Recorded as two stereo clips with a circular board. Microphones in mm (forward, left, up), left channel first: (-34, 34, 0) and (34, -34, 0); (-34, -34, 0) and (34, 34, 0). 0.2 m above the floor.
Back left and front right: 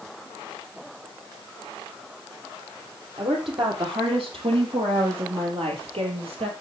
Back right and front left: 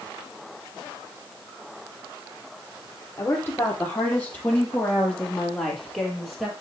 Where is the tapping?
I don't hear tapping.